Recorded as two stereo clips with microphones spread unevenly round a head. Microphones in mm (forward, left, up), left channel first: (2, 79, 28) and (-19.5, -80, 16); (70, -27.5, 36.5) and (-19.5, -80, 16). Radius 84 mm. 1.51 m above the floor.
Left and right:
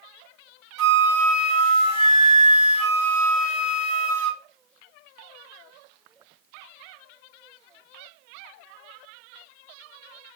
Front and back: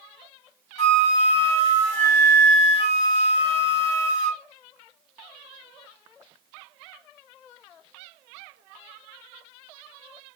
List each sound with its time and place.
0.8 s a flute: 30° right, 1.8 m